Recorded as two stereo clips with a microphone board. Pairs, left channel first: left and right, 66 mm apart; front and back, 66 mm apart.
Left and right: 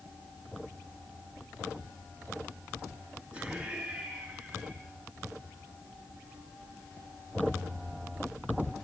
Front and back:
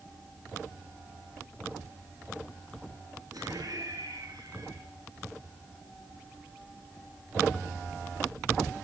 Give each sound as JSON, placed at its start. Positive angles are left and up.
{"t": 3.3, "sound": "laughter", "azimuth_deg": -170, "distance_m": 5.0}